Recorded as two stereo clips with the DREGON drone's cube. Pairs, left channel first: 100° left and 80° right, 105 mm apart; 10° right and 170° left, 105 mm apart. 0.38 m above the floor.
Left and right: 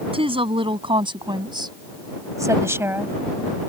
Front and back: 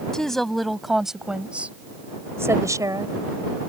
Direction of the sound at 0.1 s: 95° right.